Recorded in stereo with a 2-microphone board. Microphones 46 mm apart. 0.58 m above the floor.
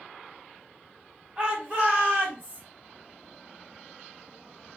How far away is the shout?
About 1.2 m.